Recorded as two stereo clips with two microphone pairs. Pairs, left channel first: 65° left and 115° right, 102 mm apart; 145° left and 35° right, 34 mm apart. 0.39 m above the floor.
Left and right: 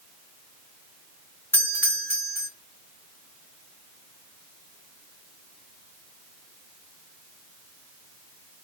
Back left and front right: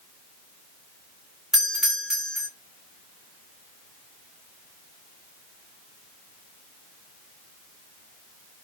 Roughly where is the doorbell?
Ahead left.